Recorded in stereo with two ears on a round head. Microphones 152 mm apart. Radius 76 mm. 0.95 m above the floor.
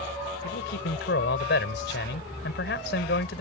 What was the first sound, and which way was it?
A man speaking, 75° left (ahead or behind).